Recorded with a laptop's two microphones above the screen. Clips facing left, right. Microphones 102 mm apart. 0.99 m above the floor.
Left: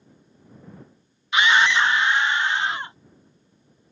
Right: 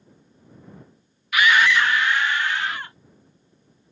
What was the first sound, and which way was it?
A scream, 25° left (ahead or behind).